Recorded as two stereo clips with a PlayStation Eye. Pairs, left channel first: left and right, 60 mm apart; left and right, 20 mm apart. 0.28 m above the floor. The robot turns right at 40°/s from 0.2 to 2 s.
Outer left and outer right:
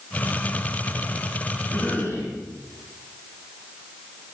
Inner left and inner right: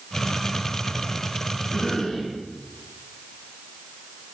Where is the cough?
45° left (ahead or behind), 2 m.